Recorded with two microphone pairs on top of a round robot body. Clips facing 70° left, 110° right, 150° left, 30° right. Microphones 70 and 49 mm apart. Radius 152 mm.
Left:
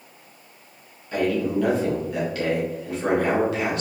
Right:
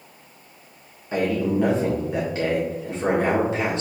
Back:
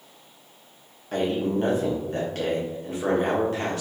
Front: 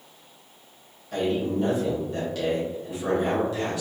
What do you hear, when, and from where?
1.1 s a man speaking: 170° right, 1.7 m